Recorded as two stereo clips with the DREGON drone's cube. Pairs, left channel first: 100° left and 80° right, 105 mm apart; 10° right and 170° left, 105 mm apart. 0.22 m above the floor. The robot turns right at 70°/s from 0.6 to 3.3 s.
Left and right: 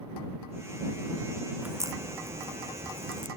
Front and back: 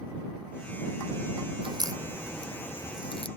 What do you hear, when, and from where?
1.6 s a crack: 155° right; by 3.3 s 40° right